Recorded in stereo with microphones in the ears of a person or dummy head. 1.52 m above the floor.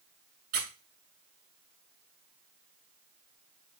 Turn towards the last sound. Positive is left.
turn(degrees=-50)  # may be behind; listen again after turning